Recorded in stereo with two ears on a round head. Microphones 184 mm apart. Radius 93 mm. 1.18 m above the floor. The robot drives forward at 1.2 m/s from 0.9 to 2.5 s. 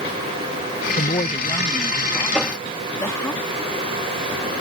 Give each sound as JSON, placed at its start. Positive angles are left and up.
{"t": 1.0, "sound": "a woman speaking", "side_deg": 40}
{"t": 2.3, "sound": "a whoosh", "side_deg": 5}